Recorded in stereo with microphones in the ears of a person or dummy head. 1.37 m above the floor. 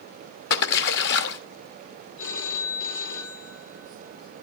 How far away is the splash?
About 1.4 m.